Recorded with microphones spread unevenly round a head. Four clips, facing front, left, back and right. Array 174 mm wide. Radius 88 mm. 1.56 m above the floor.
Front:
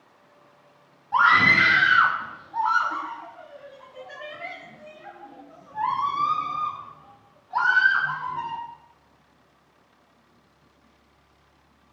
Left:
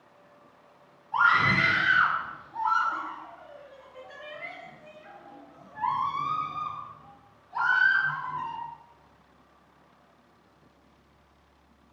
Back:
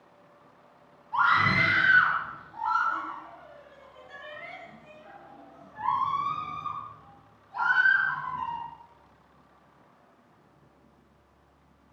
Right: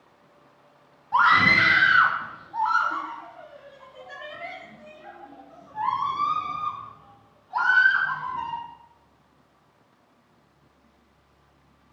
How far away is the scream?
About 2.5 m.